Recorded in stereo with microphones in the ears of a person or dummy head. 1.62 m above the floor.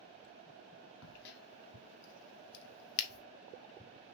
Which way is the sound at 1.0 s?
65° left (ahead or behind).